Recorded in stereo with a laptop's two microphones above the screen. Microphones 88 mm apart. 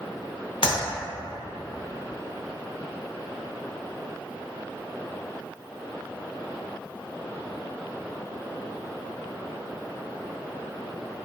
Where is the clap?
80° left, 0.8 m.